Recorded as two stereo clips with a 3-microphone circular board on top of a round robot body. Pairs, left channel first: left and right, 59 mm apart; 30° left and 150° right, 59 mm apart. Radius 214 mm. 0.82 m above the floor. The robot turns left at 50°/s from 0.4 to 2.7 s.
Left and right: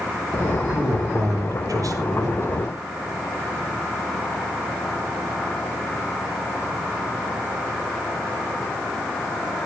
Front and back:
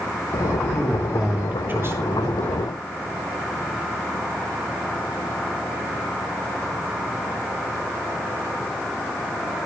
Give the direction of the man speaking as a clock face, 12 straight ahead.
2 o'clock.